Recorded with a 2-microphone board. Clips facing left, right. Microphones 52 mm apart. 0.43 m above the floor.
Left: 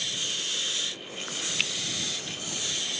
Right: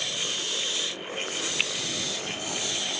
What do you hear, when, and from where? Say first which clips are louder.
1.6 s a finger snap: right 1 dB; 15° right (ahead or behind)